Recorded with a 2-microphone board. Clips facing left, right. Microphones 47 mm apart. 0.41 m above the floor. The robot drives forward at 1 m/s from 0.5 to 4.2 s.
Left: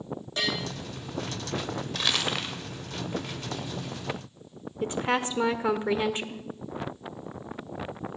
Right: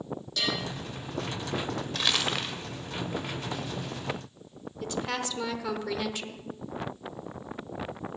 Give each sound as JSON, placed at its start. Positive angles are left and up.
{"t": 0.4, "sound": "a bell", "side_deg": 35, "distance_m": 7.0}
{"t": 1.9, "sound": "crumpling", "side_deg": 0, "distance_m": 1.7}
{"t": 4.8, "sound": "a woman speaking", "side_deg": 30, "distance_m": 1.0}